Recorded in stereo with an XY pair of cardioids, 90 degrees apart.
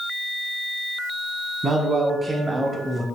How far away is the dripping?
I don't hear dripping.